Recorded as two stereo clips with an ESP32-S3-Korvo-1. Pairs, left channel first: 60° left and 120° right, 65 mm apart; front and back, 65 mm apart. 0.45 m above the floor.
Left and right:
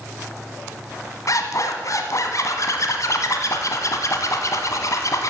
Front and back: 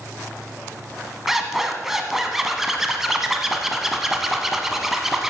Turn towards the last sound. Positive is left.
turn(degrees=95)